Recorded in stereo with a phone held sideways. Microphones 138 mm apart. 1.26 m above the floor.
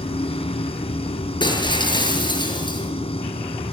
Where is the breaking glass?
35° left (ahead or behind), 7 m.